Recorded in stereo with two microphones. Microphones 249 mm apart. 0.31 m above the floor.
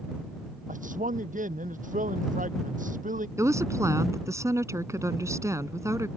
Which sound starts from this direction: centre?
A woman speaking, at 3.4 s.